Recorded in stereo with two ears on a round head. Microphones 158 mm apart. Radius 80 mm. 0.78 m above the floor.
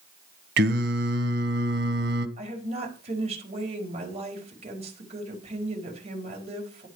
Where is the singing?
65° right (ahead or behind), 1.4 m.